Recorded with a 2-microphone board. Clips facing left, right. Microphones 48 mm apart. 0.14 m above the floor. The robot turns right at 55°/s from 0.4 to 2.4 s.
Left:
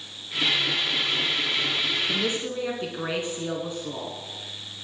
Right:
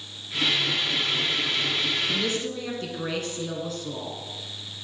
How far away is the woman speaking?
About 1.1 m.